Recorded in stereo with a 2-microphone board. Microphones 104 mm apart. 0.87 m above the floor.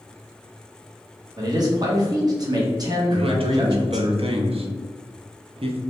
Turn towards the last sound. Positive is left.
turn(degrees=-65)  # may be behind; listen again after turning